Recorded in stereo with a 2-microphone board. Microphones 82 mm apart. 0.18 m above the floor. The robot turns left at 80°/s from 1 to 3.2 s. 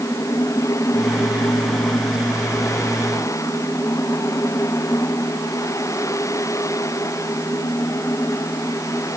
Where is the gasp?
I don't hear a gasp.